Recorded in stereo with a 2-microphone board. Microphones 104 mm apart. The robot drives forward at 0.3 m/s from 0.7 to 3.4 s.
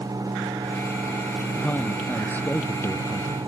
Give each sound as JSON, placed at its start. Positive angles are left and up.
{"t": 1.6, "sound": "a man speaking", "side_deg": 15}